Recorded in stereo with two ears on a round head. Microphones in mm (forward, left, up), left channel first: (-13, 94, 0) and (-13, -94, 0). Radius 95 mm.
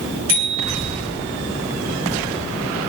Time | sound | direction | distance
0.3 | a bicycle bell | 65° right (ahead or behind) | 6.5 m